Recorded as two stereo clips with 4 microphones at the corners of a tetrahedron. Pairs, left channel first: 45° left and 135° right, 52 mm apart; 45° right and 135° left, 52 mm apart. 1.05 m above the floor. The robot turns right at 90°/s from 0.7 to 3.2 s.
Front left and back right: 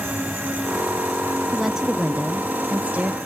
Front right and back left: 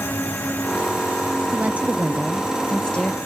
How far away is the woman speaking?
About 0.6 m.